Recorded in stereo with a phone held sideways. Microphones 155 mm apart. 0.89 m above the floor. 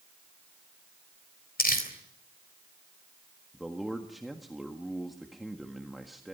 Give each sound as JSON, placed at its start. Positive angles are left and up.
{"t": 1.6, "sound": "crumpling", "side_deg": 75, "distance_m": 3.5}
{"t": 3.5, "sound": "a man speaking", "side_deg": 0, "distance_m": 1.6}